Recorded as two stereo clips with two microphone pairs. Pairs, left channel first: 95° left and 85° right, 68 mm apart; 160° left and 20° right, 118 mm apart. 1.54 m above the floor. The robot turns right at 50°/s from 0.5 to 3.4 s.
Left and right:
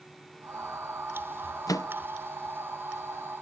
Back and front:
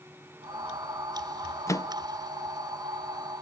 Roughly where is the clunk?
I don't hear a clunk.